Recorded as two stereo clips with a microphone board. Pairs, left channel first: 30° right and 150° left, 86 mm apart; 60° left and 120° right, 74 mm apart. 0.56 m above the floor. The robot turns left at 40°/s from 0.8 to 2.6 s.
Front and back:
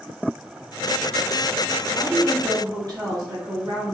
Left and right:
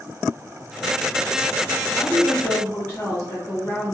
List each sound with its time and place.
1.9 s a woman speaking: 145° left, 1.5 m; by 3.9 s 115° left, 1.5 m